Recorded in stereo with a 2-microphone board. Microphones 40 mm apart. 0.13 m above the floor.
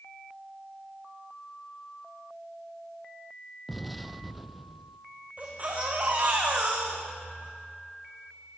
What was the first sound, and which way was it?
An explosion, centre (ahead or behind).